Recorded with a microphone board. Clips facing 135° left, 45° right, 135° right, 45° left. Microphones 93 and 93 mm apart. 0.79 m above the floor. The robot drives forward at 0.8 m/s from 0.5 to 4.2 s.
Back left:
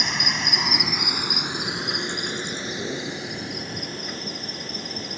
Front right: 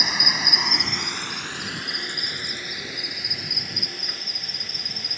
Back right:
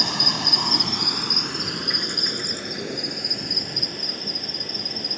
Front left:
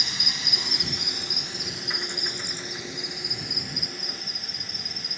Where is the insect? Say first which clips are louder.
Even, back right 10 dB; 130° right; by 5.2 s 170° right.